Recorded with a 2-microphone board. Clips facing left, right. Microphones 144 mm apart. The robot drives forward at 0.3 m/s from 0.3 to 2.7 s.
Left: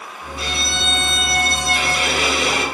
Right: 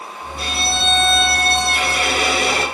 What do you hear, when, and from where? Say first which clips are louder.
0.4 s a violin: right 3 dB; 50° right (ahead or behind), 2.5 m; by 2.6 s 65° right (ahead or behind), 2 m